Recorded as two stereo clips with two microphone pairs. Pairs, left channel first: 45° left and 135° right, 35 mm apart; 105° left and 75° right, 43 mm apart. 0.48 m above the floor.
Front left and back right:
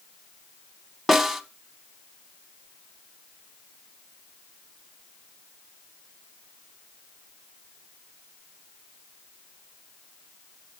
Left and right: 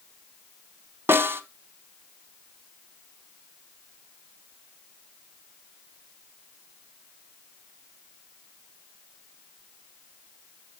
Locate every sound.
1.1 s a snare drum: 45° right, 0.8 m